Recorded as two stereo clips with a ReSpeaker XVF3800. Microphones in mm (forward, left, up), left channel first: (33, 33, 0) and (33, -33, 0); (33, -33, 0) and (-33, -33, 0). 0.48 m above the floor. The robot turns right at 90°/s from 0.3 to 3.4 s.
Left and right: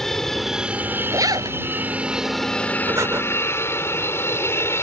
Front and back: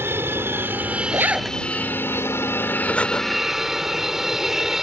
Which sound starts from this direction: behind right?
A zipper, at 1.1 s.